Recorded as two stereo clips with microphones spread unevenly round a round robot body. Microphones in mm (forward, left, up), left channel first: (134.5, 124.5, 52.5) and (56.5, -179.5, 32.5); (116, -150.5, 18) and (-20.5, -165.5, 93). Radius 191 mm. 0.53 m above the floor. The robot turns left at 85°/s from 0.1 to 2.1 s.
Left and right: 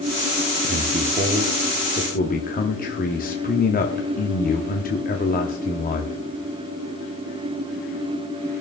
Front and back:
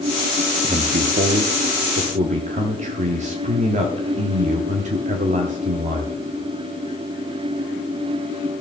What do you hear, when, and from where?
0.6 s a man speaking: 105° right, 0.8 m; by 6.2 s 130° left, 0.8 m